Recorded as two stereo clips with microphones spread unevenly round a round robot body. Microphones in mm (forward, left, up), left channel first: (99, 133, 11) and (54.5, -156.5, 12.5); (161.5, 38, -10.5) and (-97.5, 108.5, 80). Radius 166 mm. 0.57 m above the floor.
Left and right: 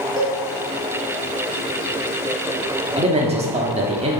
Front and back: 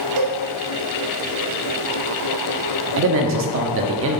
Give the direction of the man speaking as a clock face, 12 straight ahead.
5 o'clock.